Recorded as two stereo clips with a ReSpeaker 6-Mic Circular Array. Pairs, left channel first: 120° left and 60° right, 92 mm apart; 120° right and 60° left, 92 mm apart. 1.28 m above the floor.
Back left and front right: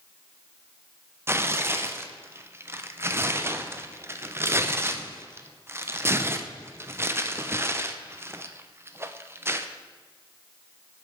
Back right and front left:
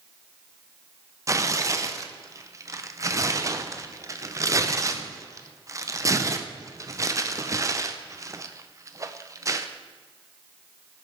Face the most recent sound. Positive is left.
turn(degrees=5)